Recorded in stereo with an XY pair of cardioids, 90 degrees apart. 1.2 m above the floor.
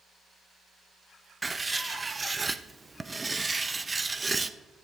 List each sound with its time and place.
1.4 s writing: 20° right, 0.8 m